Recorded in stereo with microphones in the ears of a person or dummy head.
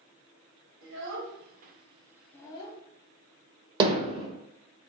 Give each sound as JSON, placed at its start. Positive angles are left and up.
{"t": 0.8, "sound": "a child speaking", "side_deg": -80, "distance_m": 1.6}
{"t": 3.8, "sound": "hammering", "side_deg": -30, "distance_m": 0.9}